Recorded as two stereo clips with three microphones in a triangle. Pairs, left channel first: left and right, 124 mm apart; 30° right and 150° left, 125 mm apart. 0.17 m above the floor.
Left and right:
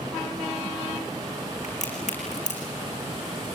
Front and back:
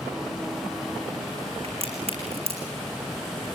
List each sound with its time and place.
1.6 s a crack: 110° left, 5.5 m